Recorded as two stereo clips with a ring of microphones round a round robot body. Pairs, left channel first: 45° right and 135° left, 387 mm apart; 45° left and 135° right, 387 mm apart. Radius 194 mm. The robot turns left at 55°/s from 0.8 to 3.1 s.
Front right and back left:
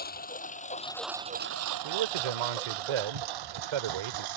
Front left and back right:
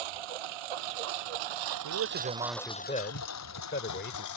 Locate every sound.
0.0 s a lawn mower: 115° right; by 4.4 s 95° left
1.8 s a man speaking: straight behind; by 4.3 s 110° left